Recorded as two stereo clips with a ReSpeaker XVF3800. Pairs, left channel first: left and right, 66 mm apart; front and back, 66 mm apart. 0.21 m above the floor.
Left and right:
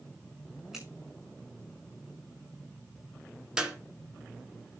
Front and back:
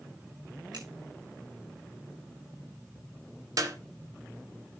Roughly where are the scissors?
Behind.